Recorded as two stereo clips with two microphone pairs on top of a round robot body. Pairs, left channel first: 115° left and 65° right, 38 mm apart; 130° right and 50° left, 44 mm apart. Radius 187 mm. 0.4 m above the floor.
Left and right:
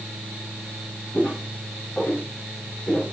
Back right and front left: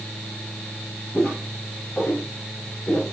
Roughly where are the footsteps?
Behind left.